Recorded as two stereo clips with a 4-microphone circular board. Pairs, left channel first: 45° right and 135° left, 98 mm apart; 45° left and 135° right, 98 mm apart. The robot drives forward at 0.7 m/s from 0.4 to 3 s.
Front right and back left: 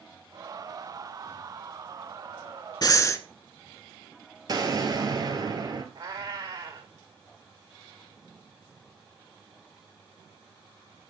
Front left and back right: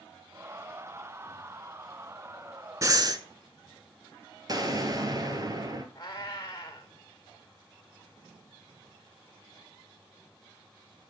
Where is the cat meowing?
90° left, 2 m.